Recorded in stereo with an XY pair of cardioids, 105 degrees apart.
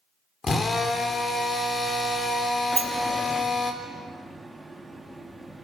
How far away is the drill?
About 3.5 m.